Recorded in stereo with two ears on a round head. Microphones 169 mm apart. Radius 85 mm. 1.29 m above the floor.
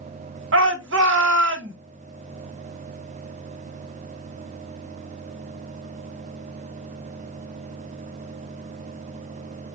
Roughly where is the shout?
Right.